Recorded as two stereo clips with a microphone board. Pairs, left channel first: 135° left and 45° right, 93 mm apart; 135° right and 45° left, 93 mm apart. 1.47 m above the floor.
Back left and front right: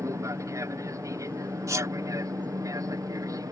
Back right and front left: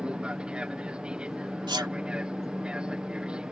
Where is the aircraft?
25° right; by 3.5 s 30° right.